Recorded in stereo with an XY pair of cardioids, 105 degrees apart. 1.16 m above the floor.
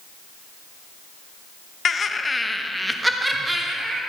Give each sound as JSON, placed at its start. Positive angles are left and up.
{"t": 1.9, "sound": "laughter", "azimuth_deg": 45, "distance_m": 0.8}